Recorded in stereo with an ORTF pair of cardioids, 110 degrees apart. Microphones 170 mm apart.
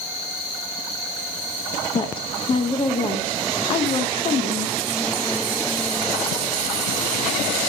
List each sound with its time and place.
1.9 s a woman speaking: 30° left, 0.7 m